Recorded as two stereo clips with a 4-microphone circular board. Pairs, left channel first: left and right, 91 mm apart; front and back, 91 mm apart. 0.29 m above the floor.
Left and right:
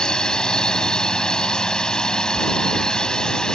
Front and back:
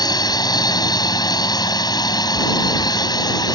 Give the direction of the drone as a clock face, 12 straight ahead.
12 o'clock.